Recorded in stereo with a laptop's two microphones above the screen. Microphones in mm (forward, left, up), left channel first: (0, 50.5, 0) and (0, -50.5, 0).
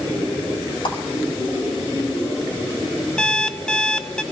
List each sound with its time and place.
0.8 s a clap: 55° left (ahead or behind), 5 m
3.2 s an alarm clock: 5° left (ahead or behind), 0.7 m